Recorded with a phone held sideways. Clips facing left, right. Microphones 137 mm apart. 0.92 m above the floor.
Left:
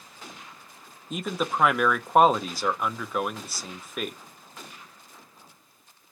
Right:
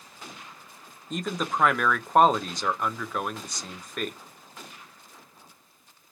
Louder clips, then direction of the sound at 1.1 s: Left 1 dB; 5° left (ahead or behind).